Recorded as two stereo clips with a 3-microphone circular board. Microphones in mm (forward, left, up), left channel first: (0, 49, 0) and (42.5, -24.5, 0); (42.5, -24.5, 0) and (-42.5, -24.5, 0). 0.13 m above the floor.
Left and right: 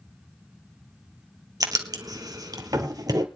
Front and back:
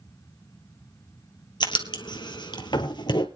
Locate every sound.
1.6 s writing: 20° right, 2 m